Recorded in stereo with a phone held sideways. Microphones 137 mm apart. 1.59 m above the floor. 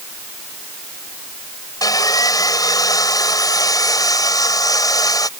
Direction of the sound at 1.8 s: 25° left (ahead or behind).